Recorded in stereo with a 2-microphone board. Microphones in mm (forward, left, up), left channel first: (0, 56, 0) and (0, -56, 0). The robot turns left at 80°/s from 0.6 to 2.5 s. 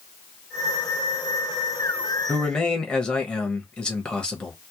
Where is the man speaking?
25° left (ahead or behind), 1.0 m; by 4.5 s 10° left (ahead or behind), 1.0 m.